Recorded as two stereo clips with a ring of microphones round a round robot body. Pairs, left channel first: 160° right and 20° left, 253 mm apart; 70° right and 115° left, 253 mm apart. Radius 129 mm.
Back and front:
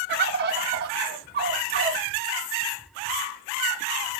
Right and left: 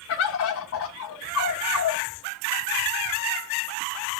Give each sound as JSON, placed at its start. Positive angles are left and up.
{"t": 0.1, "sound": "a bird", "azimuth_deg": -30, "distance_m": 0.6}